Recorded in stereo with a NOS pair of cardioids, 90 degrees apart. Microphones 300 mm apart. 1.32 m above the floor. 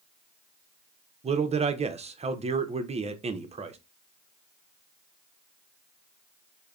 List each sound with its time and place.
1.2 s a man speaking: 20° right, 0.5 m